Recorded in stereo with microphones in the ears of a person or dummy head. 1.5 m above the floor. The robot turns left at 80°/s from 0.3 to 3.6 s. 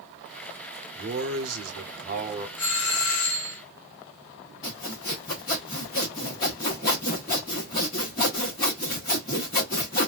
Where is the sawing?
20° left (ahead or behind), 1.0 m.